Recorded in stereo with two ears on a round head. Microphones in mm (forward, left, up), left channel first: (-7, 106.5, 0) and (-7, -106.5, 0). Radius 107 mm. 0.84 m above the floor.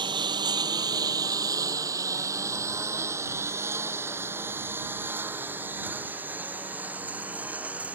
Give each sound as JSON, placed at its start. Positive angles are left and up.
{"t": 0.0, "sound": "a lawn mower", "side_deg": -20}